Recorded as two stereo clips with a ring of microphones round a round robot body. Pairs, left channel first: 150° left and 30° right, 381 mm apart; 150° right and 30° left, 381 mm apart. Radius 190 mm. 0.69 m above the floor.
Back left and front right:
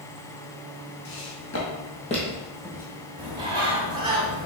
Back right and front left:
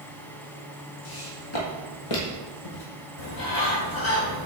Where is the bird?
110° right, 1.6 m.